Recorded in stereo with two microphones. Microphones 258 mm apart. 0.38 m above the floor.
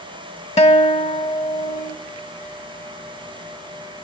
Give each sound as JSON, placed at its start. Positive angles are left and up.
{"t": 0.6, "sound": "a guitar", "side_deg": 25, "distance_m": 0.7}